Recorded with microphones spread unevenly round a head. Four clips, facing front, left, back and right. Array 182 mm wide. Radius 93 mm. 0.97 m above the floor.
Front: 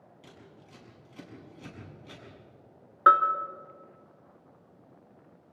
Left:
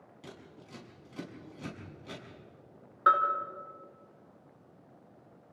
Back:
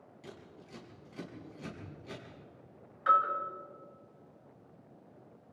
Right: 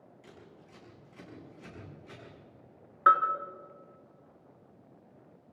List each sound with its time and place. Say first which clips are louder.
0.2 s scissors: left 5 dB, back 3 dB; 95° left, 7 m
3.1 s a bell: right 2 dB, front 7 dB; straight ahead, 1.9 m